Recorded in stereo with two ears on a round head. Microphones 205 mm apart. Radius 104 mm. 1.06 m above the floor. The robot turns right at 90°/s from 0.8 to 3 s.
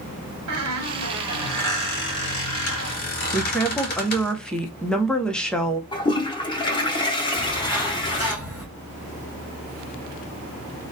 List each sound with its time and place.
0.5 s a squeak: 65° right, 1.4 m; by 4.3 s 135° left, 1.4 m
3.3 s a woman speaking: 5° left (ahead or behind), 0.6 m
5.9 s a toilet flushing: 20° left (ahead or behind), 0.7 m
7.3 s a bird: 10° right (ahead or behind), 1.8 m